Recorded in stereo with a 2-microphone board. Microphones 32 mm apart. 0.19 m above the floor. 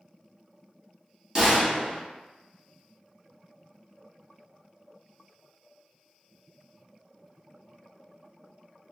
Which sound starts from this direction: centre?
A gunshot, at 1.4 s.